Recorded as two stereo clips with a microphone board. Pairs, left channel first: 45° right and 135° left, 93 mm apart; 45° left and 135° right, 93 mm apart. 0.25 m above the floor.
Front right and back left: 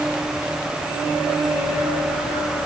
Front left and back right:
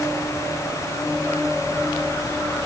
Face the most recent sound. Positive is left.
No sound to turn to.